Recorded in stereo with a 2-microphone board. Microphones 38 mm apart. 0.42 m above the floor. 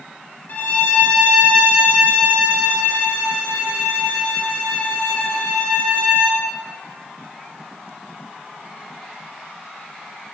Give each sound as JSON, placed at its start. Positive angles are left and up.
{"t": 0.5, "sound": "a violin", "side_deg": 55, "distance_m": 5.5}